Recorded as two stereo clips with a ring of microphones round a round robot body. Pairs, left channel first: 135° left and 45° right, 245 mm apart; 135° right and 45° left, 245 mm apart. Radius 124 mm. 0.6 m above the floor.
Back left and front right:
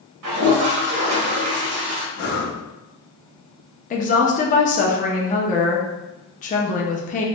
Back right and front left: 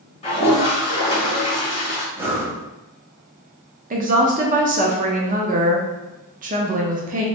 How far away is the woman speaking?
About 0.7 m.